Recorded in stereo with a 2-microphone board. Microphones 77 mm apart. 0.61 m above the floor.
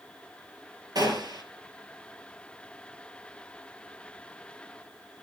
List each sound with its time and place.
0.9 s a gunshot: 55° right (ahead or behind), 2.5 m